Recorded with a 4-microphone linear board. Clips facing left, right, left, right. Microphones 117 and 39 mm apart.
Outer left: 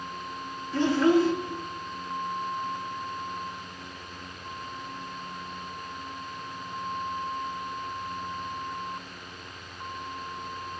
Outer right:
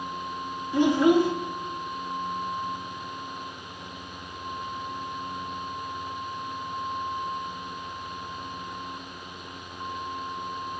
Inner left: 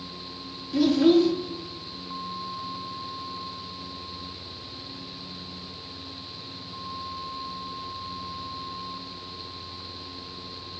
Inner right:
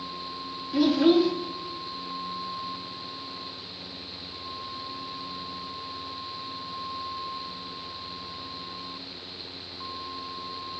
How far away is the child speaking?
About 0.7 m.